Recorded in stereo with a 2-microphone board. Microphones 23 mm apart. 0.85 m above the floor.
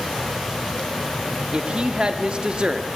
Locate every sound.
1.5 s a woman speaking: 40° right (ahead or behind), 1.7 m